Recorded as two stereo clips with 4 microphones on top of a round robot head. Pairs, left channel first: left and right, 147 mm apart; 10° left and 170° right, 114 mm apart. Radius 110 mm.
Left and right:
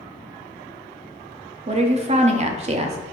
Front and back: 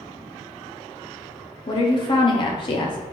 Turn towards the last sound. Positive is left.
turn(degrees=-40)